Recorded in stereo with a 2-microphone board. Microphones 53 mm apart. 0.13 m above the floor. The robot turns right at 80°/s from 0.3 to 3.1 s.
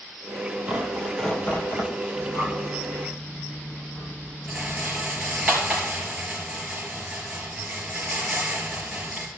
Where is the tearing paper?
30° right, 2 m; by 1.9 s 70° left, 2 m.